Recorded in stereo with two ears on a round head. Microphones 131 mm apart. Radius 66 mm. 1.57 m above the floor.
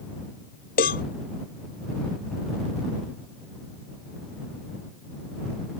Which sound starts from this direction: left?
A cowbell, at 0.8 s.